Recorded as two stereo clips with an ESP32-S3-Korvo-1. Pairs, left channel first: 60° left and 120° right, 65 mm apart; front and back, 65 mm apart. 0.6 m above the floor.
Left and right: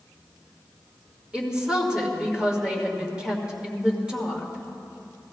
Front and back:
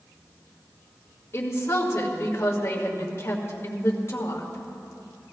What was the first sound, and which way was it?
A woman speaking, 45° right.